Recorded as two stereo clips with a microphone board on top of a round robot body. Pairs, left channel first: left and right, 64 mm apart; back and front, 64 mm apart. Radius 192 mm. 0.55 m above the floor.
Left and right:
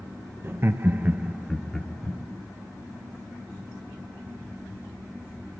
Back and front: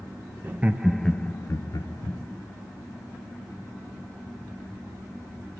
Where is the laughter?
50° right, 0.8 m; by 2.2 s 165° left, 1.0 m.